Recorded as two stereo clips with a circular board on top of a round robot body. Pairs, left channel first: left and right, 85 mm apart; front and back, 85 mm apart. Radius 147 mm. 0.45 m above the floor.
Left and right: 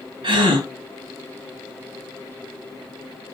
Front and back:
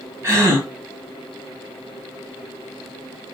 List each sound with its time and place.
0.2 s a gasp: 120° right, 1.6 m